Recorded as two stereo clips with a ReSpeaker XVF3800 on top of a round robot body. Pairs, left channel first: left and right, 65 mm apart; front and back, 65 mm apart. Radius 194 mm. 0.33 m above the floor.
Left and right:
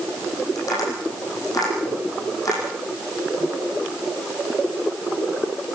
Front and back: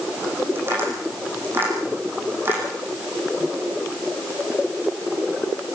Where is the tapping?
120° left, 7.5 m.